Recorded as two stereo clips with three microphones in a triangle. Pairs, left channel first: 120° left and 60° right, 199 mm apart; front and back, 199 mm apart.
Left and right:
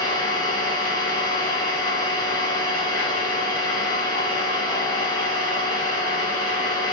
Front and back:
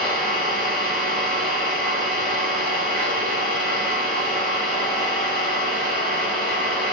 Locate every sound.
0.0 s an engine running: 140° left, 4 m